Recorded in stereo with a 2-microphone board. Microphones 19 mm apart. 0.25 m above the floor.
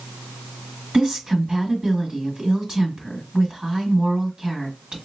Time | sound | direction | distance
0.9 | a woman speaking | 50° right (ahead or behind) | 1.6 m